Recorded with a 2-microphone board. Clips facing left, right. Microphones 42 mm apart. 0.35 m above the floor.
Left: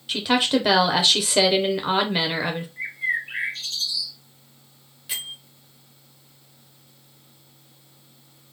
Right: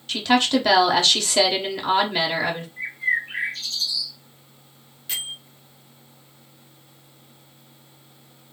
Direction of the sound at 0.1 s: 10° left (ahead or behind).